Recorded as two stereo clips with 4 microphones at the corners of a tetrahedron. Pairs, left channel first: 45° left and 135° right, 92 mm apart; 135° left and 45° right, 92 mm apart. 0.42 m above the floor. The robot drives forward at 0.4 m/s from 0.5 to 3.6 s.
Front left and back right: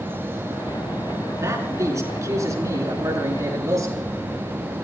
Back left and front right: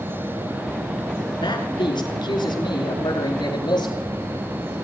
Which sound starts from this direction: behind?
A man speaking, at 1.4 s.